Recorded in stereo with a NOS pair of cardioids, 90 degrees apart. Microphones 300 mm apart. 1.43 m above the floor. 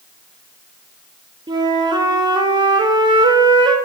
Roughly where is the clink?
I don't hear a clink.